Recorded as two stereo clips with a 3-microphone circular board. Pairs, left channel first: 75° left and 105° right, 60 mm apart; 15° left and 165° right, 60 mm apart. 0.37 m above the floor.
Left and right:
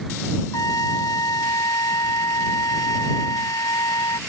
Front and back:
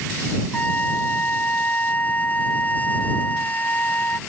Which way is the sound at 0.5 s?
80° left.